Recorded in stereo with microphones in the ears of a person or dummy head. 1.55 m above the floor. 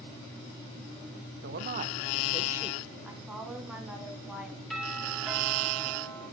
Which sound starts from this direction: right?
A man speaking, at 1.4 s.